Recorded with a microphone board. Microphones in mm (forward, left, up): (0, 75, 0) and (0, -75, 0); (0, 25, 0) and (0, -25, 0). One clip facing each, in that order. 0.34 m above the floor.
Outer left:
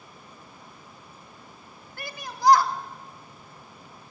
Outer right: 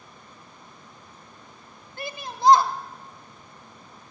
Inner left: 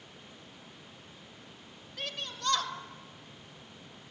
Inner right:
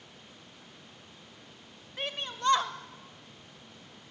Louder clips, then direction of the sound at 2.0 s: Outer right 2 dB, inner right 4 dB; 25° right (ahead or behind).